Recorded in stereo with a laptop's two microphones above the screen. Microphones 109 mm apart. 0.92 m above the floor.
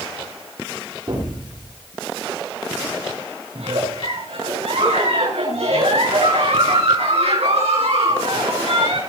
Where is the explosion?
45° right (ahead or behind), 6.5 m.